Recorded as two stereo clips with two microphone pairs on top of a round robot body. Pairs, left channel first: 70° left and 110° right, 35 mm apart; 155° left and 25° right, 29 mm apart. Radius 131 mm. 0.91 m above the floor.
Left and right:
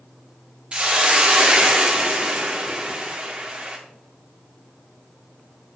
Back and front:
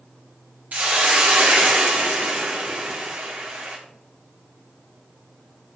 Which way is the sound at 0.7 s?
50° right.